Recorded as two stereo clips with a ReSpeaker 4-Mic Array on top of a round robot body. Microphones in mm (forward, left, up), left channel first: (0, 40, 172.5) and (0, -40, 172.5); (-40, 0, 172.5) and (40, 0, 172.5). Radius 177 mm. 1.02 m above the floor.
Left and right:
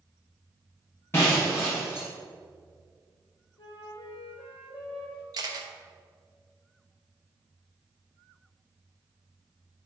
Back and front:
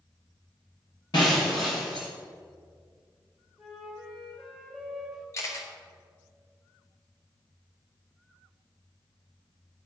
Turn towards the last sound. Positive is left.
turn(degrees=-130)